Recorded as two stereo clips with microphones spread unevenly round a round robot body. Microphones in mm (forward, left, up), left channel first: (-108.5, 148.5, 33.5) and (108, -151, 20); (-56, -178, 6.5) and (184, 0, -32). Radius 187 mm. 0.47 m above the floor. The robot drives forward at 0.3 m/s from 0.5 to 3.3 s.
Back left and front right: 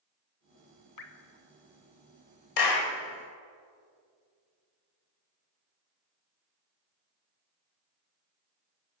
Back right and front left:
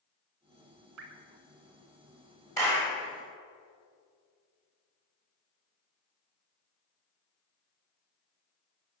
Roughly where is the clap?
Behind left.